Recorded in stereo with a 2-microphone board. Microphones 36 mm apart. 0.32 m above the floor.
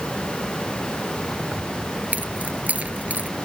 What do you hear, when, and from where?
1.5 s keys jangling: 45° right (ahead or behind)